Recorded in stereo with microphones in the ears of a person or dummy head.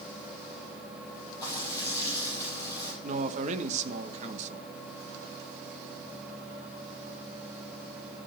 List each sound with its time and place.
1.4 s frying: 20° left (ahead or behind), 7.5 m
3.0 s a man speaking: 40° right (ahead or behind), 1.1 m